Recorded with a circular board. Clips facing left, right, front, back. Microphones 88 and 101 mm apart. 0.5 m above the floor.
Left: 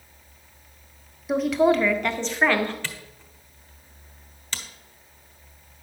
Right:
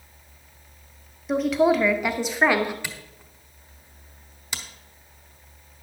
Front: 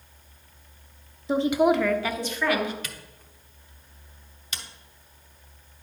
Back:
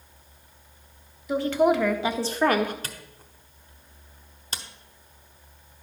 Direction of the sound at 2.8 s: 155° right.